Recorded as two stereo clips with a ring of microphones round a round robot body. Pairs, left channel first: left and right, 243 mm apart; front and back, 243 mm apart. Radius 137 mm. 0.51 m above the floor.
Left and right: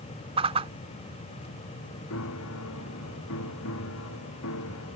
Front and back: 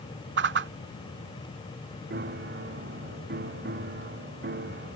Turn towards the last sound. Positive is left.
turn(degrees=130)